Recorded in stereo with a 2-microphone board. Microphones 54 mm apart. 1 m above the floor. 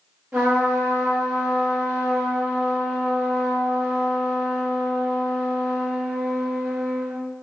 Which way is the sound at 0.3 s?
20° right (ahead or behind).